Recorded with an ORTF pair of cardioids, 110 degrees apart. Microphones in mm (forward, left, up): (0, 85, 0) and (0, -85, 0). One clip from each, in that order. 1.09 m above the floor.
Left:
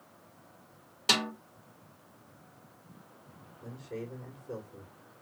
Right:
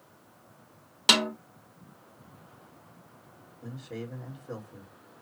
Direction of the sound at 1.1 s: 55° right.